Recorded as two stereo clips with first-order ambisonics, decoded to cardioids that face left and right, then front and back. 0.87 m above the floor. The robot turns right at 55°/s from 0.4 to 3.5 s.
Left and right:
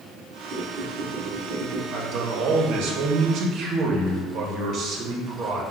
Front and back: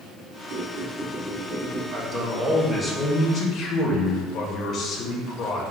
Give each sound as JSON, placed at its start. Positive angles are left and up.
{"t": 0.5, "sound": "a squeak", "azimuth_deg": -140, "distance_m": 1.0}
{"t": 1.9, "sound": "a man speaking", "azimuth_deg": -130, "distance_m": 0.8}